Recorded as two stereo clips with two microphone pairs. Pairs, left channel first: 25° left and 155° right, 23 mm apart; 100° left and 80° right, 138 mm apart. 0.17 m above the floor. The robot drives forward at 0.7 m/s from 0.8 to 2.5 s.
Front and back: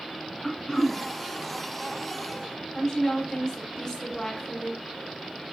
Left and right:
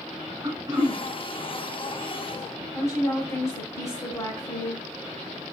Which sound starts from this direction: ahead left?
A woman speaking, at 2.7 s.